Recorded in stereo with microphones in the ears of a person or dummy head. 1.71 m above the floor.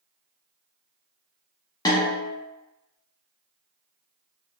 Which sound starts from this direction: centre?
A snare drum, at 1.9 s.